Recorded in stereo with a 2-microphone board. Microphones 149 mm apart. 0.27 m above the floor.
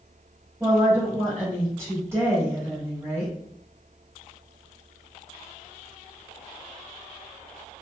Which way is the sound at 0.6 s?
15° right (ahead or behind).